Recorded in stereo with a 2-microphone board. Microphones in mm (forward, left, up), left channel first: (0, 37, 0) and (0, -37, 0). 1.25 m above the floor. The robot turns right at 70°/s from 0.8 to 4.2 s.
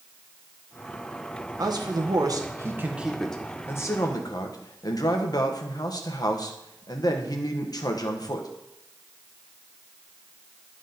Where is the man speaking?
115° right, 1.1 m; by 8.5 s 70° left, 1.1 m.